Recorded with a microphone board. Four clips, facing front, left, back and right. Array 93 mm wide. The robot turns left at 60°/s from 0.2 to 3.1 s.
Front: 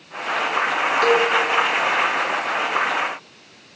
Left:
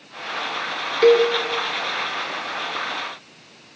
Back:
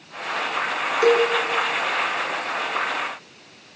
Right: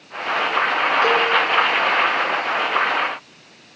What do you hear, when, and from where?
1.0 s a cowbell: 115° left, 5 m; by 1.3 s 95° left, 5 m